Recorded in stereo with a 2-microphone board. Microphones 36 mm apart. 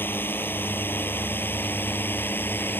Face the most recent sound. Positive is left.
turn(degrees=80)